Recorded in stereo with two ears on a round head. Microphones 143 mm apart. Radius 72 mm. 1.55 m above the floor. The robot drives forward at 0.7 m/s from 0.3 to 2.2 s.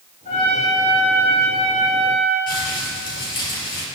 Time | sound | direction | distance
0.2 | a trumpet | 45° left (ahead or behind) | 6.5 m
2.5 | crumpling | 30° left (ahead or behind) | 6.5 m